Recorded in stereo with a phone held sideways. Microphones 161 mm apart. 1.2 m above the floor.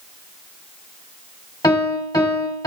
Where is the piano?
20° left (ahead or behind), 1.3 m.